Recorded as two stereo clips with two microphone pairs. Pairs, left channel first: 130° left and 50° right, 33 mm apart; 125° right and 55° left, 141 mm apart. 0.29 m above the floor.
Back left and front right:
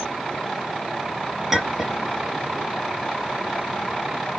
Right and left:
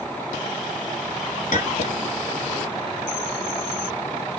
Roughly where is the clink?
Behind right.